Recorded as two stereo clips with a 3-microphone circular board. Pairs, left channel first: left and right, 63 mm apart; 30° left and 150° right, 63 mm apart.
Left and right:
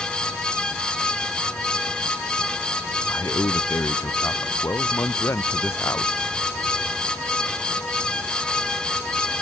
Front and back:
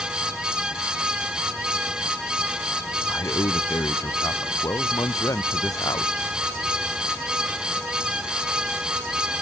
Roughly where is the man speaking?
Ahead left.